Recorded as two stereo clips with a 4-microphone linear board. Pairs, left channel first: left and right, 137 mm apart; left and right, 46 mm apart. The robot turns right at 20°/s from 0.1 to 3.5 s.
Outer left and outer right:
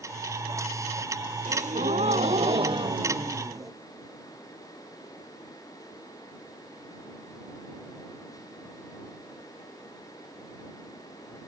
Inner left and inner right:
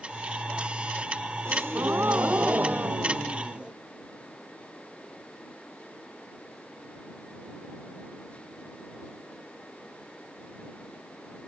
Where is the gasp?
65° right; by 3.7 s 25° right.